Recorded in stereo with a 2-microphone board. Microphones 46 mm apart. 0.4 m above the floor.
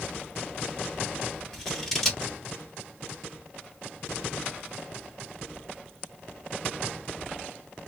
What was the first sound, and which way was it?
Scissors, 10° left (ahead or behind).